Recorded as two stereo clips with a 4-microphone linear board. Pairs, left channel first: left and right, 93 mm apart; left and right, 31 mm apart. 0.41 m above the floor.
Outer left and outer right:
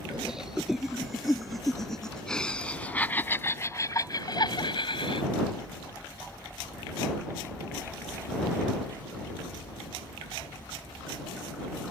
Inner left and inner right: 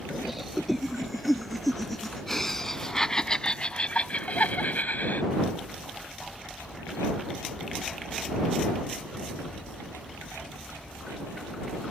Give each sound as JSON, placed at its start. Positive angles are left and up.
{"t": 0.1, "sound": "laughter", "side_deg": -5}